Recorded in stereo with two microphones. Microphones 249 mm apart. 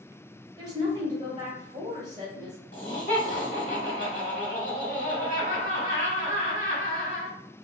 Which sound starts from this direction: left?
Laughter, at 2.7 s.